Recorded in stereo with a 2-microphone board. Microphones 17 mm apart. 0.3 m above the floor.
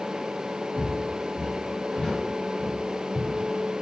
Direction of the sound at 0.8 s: 25° left (ahead or behind).